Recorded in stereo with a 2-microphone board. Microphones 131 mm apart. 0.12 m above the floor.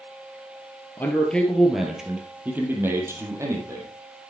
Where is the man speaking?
15° left (ahead or behind), 2 m; by 3.9 s 25° right (ahead or behind), 3.5 m.